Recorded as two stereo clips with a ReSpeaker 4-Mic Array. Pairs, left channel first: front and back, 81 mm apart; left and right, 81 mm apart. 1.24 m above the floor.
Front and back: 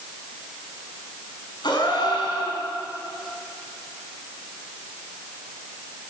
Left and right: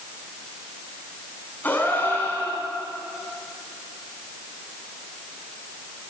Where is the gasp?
20° left, 7.5 m.